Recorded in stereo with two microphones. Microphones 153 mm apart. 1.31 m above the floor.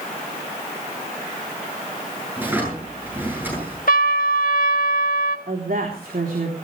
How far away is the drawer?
About 9 m.